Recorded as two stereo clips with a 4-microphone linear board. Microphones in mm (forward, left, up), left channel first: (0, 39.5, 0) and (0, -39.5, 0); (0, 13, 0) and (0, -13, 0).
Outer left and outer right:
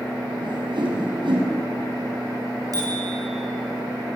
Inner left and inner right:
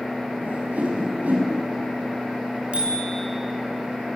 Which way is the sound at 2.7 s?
50° right (ahead or behind).